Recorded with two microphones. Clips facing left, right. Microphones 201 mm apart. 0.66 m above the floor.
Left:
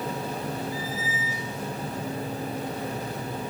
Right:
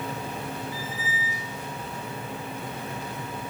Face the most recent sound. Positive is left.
turn(degrees=-20)  # may be behind; listen again after turning